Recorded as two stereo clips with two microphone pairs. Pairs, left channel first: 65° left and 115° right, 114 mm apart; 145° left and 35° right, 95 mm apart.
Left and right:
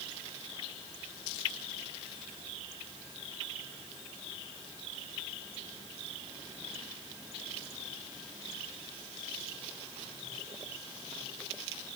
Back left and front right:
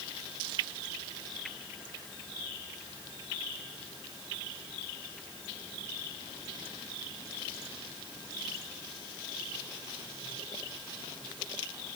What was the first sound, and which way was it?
Only background noise.